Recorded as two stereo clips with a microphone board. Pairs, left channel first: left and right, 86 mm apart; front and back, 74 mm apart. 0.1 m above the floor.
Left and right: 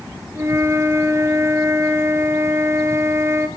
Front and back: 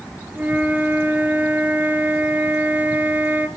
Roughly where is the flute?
Behind right.